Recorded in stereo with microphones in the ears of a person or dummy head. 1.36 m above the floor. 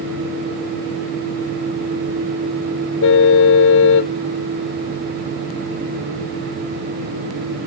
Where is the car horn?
65° left (ahead or behind).